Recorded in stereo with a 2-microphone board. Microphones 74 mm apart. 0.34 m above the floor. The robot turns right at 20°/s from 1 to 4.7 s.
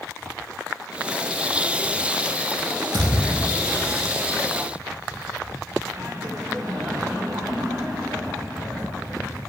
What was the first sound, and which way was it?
A thud, 80° right.